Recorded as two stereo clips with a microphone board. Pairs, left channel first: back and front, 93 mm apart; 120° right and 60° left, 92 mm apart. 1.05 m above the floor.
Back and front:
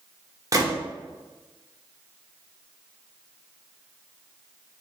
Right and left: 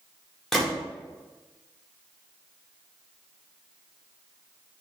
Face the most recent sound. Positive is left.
turn(degrees=-30)